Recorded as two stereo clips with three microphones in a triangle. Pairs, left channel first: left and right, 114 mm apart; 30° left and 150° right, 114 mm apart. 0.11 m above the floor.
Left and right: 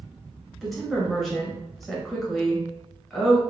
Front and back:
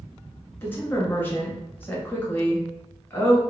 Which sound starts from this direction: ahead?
A woman speaking, at 0.6 s.